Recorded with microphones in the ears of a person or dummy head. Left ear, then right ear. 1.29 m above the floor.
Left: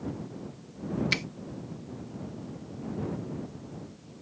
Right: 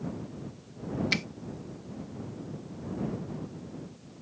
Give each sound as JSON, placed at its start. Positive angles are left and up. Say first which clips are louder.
{"t": 1.1, "sound": "a finger snap", "louder": "even", "side_deg": 0}